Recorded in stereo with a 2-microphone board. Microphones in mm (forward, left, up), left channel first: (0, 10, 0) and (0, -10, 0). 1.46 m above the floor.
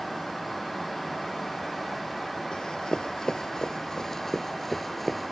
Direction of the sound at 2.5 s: 45° left (ahead or behind).